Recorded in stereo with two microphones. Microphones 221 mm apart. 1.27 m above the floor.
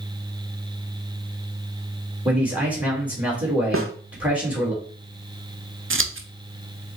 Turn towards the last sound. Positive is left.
turn(degrees=-65)  # may be behind; listen again after turning